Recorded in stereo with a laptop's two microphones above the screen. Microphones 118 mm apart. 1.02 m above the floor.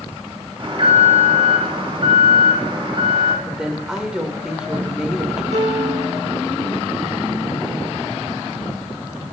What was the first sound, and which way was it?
An alarm, 45° right (ahead or behind).